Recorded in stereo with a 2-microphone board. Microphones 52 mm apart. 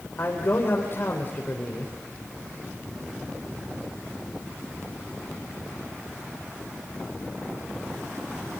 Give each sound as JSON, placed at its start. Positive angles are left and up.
{"t": 0.2, "sound": "a man speaking", "side_deg": 45, "distance_m": 3.5}